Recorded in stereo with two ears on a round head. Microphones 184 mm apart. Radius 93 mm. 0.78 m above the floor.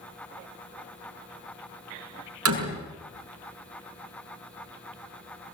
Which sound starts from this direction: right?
A door slam, at 2.5 s.